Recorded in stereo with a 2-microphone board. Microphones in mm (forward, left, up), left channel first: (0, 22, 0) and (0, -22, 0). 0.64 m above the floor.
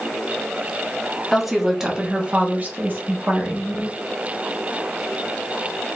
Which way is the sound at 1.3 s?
Centre (ahead or behind).